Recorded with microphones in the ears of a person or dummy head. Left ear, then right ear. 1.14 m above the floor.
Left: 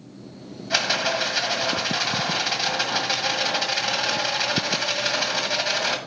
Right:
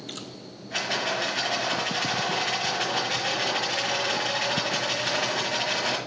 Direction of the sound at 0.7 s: 60° left (ahead or behind).